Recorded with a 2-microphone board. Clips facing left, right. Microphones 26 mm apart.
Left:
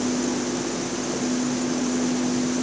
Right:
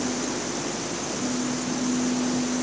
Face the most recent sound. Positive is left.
No sound to turn to.